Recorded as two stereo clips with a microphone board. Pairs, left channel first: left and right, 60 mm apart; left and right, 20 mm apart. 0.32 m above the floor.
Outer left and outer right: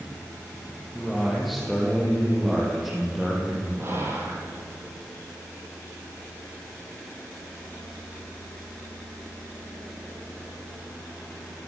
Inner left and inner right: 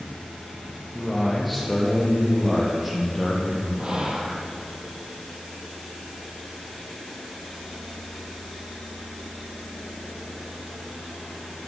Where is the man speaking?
Centre (ahead or behind), 9.5 m; by 3.7 s 5° right (ahead or behind), 12.5 m.